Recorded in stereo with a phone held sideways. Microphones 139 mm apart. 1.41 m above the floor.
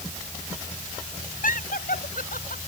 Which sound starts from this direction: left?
Laughter, at 1.4 s.